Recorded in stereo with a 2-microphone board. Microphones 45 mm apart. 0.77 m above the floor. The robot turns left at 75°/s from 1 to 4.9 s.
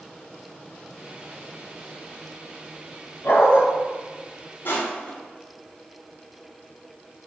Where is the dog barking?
60° left (ahead or behind), 1.2 m; by 3.6 s 70° left (ahead or behind), 1.2 m.